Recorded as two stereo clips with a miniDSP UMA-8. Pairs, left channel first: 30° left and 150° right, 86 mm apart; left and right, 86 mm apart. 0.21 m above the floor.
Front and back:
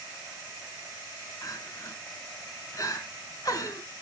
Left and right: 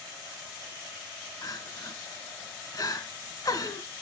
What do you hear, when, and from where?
1.4 s crying: 60° left, 1.6 m